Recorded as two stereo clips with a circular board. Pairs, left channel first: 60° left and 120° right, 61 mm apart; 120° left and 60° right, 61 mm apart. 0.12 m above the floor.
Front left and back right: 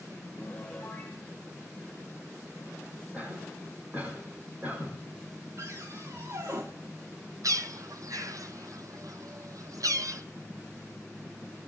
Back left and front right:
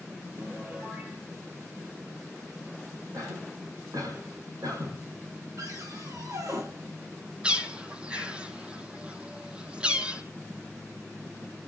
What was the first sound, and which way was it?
A piano, 5° right.